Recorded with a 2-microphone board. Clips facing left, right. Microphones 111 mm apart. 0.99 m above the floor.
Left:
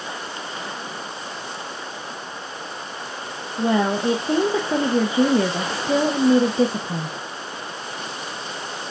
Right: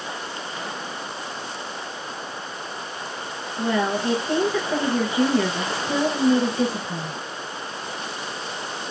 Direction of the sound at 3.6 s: 25° left (ahead or behind).